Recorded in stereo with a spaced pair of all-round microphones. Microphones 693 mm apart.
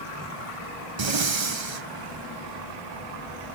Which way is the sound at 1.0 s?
40° right (ahead or behind).